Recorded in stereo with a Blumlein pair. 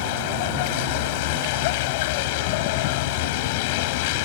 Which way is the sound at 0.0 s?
50° left.